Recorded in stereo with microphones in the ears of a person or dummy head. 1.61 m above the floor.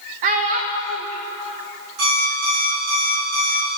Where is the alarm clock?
80° right, 3.5 m.